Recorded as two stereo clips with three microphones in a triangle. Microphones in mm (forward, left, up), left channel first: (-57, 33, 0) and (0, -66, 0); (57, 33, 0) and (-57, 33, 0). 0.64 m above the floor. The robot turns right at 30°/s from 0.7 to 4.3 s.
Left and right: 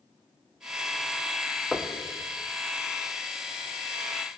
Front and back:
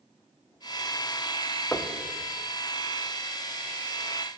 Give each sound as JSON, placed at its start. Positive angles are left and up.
{"t": 1.7, "sound": "knocking", "azimuth_deg": 40, "distance_m": 0.7}